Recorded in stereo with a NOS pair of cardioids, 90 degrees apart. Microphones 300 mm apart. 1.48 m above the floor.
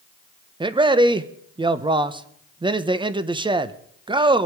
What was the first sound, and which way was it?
A man speaking, 15° right.